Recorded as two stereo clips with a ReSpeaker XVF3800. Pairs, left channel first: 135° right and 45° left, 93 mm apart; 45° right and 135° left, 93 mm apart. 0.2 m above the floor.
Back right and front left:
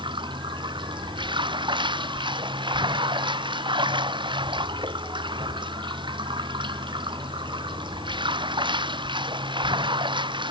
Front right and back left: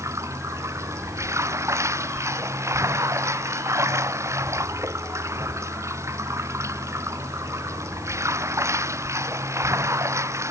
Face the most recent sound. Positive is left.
turn(degrees=75)